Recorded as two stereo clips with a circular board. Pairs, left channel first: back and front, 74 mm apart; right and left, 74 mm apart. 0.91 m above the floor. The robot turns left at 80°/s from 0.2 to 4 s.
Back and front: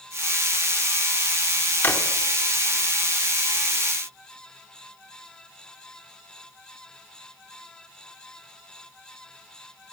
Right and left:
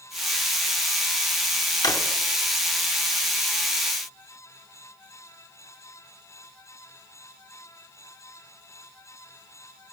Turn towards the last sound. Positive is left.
turn(degrees=70)